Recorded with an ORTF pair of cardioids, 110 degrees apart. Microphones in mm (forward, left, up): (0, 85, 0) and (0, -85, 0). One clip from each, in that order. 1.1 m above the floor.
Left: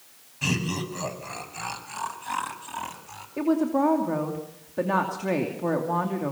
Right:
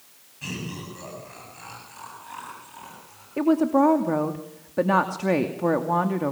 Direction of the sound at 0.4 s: 45° left.